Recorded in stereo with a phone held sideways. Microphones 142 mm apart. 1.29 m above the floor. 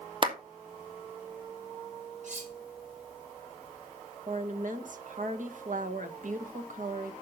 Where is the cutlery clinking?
60° right (ahead or behind), 2.5 m.